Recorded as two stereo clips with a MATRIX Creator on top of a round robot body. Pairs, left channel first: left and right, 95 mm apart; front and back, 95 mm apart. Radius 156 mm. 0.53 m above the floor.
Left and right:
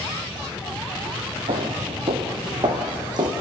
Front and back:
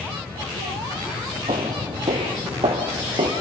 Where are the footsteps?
130° right, 0.9 m; by 3.3 s 140° right, 2.0 m.